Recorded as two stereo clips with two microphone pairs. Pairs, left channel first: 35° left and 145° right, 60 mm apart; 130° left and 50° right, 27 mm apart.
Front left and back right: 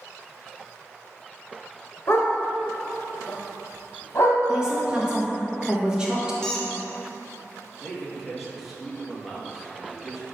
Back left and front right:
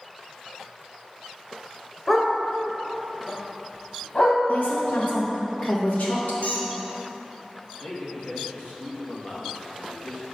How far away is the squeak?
About 0.8 m.